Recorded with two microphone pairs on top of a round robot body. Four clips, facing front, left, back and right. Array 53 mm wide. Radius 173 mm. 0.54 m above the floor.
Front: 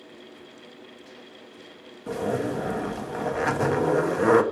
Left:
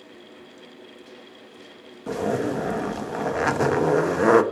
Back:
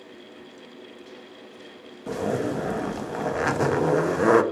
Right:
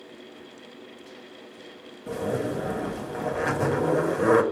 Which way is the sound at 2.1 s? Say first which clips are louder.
Left 3 dB, back 1 dB; 105° left.